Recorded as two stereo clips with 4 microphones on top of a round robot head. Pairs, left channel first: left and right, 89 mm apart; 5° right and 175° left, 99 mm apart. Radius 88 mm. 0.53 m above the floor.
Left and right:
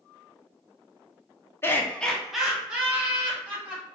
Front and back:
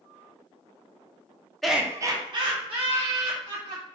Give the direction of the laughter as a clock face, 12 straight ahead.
9 o'clock.